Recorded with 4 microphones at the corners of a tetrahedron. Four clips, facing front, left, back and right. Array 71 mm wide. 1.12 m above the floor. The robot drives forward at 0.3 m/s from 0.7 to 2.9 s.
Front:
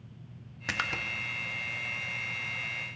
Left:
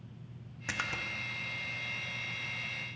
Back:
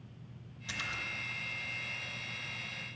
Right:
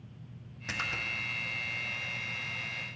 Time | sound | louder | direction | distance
0.7 | a splash | right 1 dB, front 7 dB | 10° left | 1.1 m